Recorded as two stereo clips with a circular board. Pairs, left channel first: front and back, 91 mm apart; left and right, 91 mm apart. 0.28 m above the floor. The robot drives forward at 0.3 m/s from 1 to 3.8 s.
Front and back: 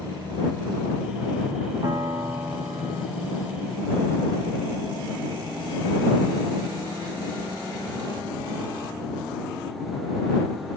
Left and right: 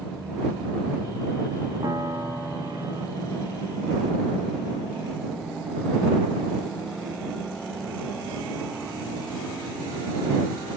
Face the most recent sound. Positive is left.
turn(degrees=-155)